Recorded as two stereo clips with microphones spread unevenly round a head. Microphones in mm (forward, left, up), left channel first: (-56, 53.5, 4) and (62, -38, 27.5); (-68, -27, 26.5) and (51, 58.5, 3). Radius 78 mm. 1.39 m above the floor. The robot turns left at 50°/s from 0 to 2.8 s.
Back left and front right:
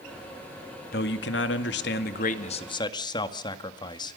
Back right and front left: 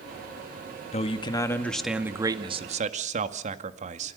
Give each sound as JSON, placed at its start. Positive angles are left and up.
{"t": 0.9, "sound": "a man speaking", "azimuth_deg": 170, "distance_m": 1.9}